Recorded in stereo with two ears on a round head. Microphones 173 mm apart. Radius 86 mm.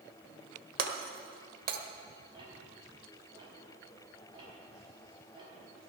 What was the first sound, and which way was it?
Breaking glass, 50° right (ahead or behind).